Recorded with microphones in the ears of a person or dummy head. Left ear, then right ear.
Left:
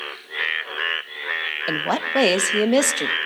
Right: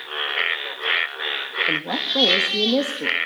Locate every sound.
1.7 s a woman speaking: 55° left (ahead or behind), 0.8 m